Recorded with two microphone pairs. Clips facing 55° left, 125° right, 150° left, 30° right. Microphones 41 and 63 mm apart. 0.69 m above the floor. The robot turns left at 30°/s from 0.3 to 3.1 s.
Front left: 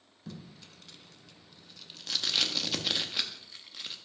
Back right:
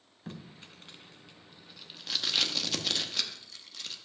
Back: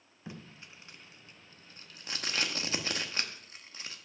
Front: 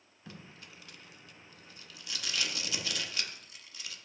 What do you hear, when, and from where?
0.3 s tape being pulled: 150° right, 0.8 m; by 4.0 s 125° left, 0.8 m